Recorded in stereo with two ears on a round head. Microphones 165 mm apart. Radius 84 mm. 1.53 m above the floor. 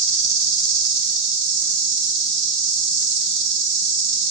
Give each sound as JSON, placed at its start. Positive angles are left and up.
{"t": 0.0, "sound": "an insect", "side_deg": -65, "distance_m": 3.5}